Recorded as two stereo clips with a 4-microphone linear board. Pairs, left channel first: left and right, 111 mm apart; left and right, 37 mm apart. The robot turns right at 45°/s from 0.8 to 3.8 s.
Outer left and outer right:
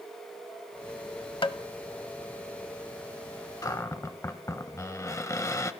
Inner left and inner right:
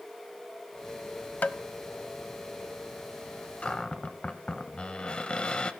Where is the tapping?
50° left (ahead or behind), 0.6 m; by 1.6 s 55° left (ahead or behind), 0.6 m.